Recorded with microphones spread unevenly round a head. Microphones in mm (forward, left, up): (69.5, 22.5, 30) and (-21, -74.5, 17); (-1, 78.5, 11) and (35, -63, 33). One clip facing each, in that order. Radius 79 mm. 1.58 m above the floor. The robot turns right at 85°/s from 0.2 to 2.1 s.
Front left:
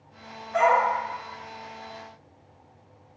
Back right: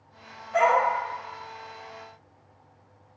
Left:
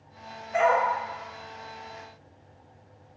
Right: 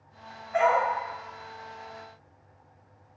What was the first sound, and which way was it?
A dog barking, 150° left.